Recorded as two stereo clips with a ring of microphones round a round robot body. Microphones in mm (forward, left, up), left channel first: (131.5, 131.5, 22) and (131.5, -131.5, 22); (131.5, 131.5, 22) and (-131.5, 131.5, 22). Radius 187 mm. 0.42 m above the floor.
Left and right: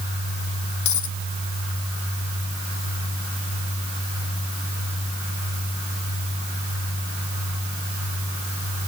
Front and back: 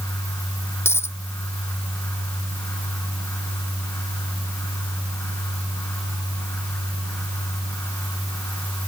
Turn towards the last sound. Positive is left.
turn(degrees=80)